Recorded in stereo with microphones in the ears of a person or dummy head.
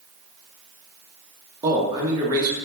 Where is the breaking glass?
No breaking glass in this recording.